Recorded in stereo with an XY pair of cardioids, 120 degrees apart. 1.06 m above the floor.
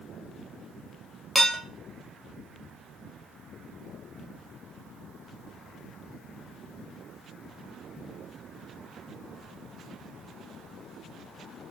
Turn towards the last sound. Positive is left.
turn(degrees=-5)